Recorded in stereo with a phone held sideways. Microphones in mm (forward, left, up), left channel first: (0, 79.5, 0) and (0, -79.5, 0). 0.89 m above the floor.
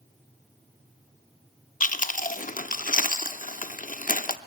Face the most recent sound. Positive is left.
turn(degrees=55)  # may be behind; listen again after turning